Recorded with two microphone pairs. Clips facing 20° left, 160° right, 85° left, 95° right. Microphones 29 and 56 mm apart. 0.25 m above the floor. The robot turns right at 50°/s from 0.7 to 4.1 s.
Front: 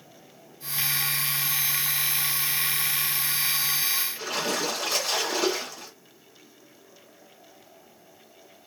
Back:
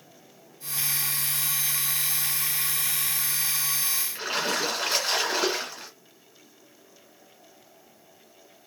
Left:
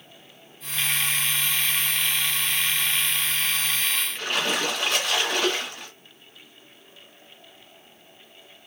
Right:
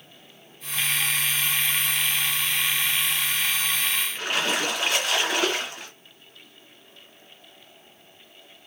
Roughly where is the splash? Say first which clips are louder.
Back 1 dB, even; behind.